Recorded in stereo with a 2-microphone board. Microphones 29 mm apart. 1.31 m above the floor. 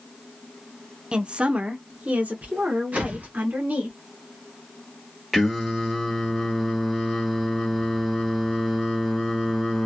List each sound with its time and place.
1.1 s a woman speaking: 30° right (ahead or behind), 0.5 m; by 3.9 s 75° right (ahead or behind), 1.7 m
2.9 s a whoosh: 55° right (ahead or behind), 1.2 m
5.3 s singing: centre (ahead or behind), 1.2 m